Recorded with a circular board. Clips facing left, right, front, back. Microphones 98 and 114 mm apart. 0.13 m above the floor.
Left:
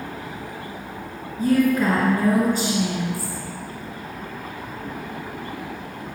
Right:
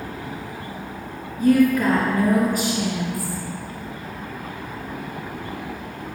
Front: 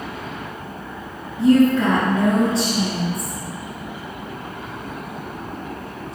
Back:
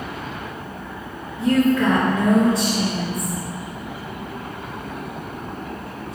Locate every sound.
1.4 s a woman speaking: 45° left, 2 m